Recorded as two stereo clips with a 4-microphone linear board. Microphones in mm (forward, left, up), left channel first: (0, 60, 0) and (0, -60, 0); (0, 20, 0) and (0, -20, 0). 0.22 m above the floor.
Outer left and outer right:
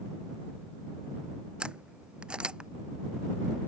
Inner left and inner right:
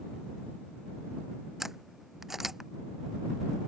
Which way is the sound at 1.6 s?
10° right (ahead or behind).